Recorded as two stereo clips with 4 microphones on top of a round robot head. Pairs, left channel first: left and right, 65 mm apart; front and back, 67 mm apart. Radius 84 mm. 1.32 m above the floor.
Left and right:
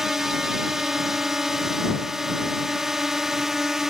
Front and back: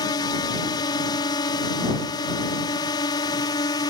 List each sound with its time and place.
0.0 s a drone: 5° right